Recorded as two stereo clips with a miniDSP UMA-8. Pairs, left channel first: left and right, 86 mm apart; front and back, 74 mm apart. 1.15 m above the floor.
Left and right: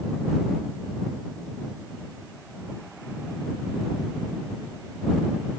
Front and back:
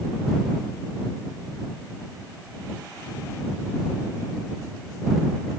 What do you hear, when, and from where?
Only background noise.